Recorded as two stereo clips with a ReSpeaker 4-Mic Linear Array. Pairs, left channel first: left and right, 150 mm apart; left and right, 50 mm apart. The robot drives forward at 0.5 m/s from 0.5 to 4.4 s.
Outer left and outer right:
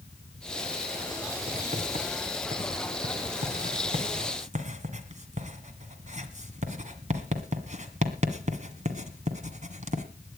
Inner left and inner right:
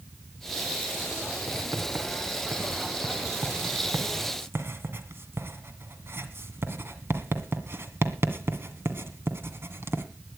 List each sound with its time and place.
1.5 s writing: 45° right (ahead or behind), 1.9 m; by 10.1 s 55° right (ahead or behind), 1.7 m